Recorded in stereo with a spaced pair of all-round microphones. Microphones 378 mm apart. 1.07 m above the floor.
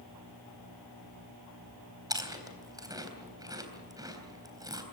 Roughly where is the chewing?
Centre.